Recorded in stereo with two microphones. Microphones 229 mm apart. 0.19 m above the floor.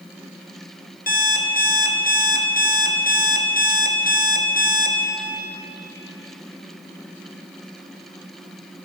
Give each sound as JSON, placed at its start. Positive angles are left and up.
{"t": 1.1, "sound": "an alarm clock", "side_deg": 45, "distance_m": 1.3}